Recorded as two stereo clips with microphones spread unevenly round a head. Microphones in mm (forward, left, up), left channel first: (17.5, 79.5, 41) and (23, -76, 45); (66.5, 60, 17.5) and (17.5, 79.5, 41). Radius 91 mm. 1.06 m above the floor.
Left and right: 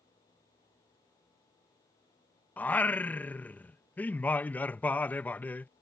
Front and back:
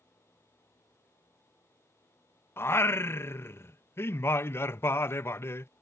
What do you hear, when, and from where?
2.6 s singing: 10° left